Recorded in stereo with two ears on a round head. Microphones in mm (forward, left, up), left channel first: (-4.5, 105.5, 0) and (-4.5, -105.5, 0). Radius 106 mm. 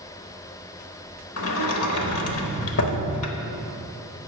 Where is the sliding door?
65° left (ahead or behind), 0.9 m.